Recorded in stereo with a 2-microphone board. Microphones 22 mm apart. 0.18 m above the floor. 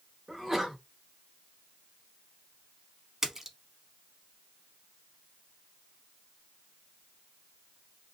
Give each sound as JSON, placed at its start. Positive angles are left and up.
{"t": 0.3, "sound": "a sneeze", "side_deg": -15, "distance_m": 1.1}
{"t": 3.2, "sound": "a splash", "side_deg": -15, "distance_m": 0.8}